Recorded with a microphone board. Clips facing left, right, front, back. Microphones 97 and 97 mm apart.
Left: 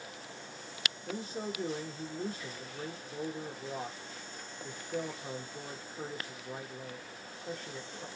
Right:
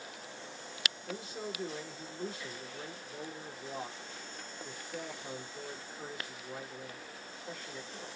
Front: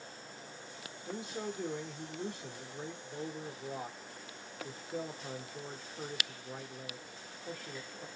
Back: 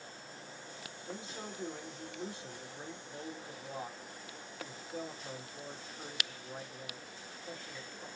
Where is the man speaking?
35° left, 1.0 m.